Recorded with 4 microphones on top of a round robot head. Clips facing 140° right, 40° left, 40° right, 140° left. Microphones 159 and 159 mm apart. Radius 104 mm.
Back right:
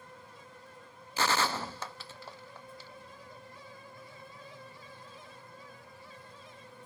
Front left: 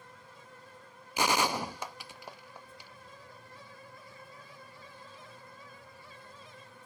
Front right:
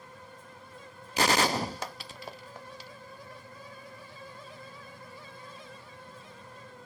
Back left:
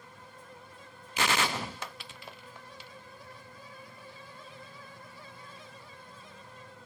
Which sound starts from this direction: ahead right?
A gunshot, at 1.2 s.